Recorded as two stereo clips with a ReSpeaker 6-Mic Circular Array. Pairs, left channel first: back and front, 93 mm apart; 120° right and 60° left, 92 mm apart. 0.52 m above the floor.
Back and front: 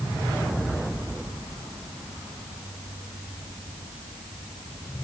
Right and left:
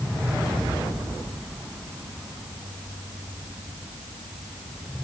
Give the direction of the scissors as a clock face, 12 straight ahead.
No scissors in this recording.